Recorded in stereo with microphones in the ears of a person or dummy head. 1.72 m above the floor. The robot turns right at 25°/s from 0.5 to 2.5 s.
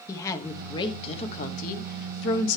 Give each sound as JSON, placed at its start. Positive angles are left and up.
{"t": 0.1, "sound": "a woman speaking", "azimuth_deg": 20, "distance_m": 1.2}